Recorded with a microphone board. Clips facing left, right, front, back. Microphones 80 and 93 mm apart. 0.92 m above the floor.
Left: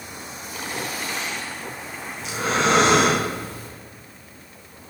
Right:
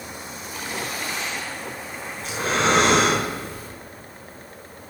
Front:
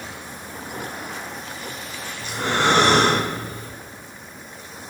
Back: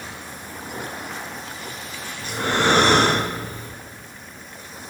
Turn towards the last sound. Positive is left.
turn(degrees=-135)